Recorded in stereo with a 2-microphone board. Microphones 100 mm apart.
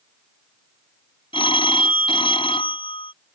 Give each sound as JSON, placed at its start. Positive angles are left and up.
{"t": 1.3, "sound": "a phone ringing", "side_deg": 65}